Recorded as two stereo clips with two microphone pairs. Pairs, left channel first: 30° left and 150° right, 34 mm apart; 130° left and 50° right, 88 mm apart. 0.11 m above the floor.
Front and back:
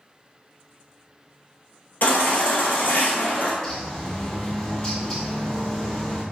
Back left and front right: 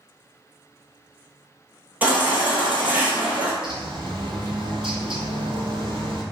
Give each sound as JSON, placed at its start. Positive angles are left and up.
{"t": 2.0, "sound": "a baby crying", "azimuth_deg": 20, "distance_m": 0.9}
{"t": 3.6, "sound": "a bird", "azimuth_deg": -40, "distance_m": 0.7}